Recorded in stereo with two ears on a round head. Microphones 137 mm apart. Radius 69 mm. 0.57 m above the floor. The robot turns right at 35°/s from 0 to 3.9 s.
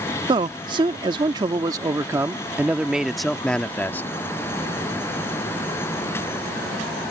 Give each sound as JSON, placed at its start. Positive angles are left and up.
{"t": 0.3, "sound": "a man speaking", "azimuth_deg": -100}